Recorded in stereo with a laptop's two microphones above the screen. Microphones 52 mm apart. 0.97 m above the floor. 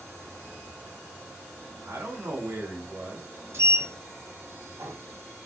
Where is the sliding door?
60° right (ahead or behind), 2.0 m.